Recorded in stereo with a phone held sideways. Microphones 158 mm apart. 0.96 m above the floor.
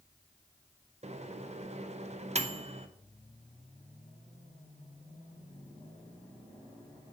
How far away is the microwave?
About 0.5 m.